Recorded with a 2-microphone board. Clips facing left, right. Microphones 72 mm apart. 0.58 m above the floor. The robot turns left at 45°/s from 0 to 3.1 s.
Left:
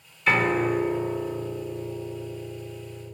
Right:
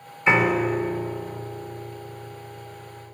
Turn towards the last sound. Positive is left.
turn(degrees=75)